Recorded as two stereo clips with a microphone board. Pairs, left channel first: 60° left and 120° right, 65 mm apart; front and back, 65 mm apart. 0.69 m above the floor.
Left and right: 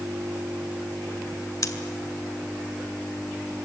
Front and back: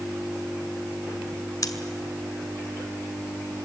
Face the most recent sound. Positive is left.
turn(degrees=30)